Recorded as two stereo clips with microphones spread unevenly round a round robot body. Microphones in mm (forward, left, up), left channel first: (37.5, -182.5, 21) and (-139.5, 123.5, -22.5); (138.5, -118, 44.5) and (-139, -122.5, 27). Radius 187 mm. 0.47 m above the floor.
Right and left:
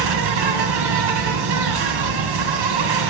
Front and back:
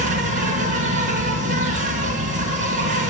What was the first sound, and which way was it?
An insect, 120° left.